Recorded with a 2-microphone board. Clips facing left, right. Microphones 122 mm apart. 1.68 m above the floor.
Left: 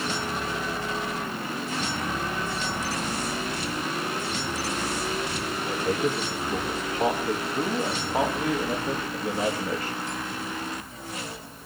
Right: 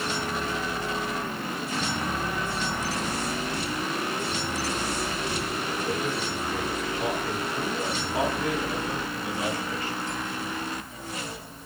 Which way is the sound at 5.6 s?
30° left (ahead or behind).